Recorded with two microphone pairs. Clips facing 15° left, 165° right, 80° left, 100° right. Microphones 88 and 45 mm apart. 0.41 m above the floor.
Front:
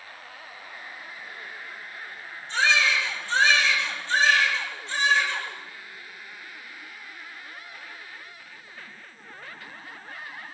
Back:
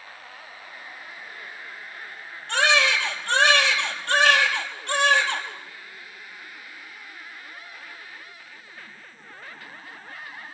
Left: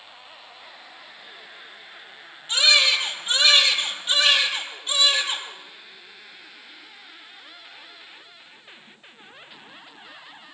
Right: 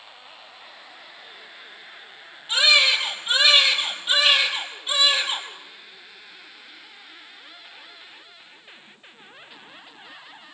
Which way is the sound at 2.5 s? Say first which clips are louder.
Back 2 dB, right 1 dB; 175° left.